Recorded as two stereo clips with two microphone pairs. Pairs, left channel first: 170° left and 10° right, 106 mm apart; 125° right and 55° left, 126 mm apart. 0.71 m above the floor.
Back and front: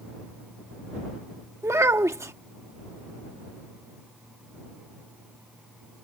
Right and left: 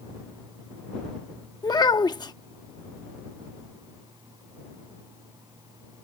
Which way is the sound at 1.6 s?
70° right.